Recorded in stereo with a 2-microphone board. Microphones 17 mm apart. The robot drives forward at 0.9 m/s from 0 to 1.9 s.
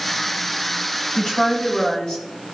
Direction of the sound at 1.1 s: 55° left (ahead or behind).